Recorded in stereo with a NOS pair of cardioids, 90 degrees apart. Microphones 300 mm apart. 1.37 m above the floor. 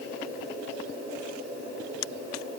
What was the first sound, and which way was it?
Only background noise.